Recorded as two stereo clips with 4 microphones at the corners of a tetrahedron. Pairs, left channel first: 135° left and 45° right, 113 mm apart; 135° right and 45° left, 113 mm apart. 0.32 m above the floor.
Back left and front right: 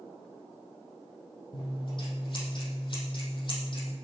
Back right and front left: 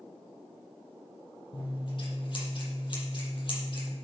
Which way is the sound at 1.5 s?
Straight behind.